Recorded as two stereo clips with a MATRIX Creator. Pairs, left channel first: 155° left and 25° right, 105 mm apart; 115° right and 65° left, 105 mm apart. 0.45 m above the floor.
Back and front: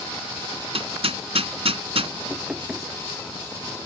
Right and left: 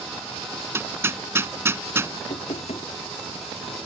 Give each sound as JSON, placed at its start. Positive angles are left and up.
{"t": 0.7, "sound": "hammering", "azimuth_deg": 0}
{"t": 2.3, "sound": "knocking", "azimuth_deg": -105}